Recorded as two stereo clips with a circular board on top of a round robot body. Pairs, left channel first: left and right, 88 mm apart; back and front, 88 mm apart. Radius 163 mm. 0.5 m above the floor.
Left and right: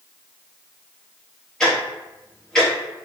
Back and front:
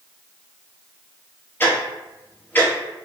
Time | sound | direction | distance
1.6 | ticking | 160° left | 1.4 m